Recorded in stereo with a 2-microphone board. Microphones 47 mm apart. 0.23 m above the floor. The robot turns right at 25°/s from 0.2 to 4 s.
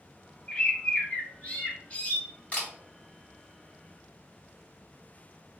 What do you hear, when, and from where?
0.5 s a bird: 60° left, 0.9 m; by 2.2 s 105° left, 0.9 m
2.5 s a camera shutter: 30° left (ahead or behind), 1.9 m; by 2.7 s 25° left (ahead or behind), 1.9 m